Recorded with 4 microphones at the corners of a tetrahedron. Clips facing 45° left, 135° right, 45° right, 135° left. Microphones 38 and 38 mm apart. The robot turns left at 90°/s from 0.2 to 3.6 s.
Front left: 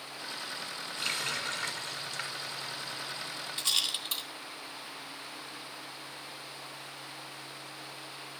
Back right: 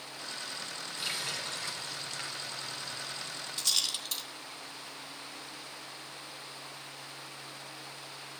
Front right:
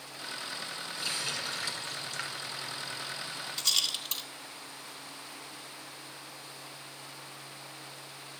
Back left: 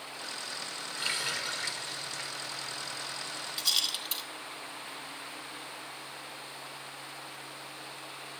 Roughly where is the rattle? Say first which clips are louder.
Front left 2 dB, even; left.